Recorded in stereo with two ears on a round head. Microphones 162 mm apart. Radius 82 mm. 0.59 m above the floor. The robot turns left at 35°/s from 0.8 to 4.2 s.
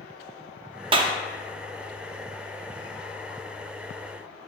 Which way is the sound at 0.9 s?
30° right (ahead or behind).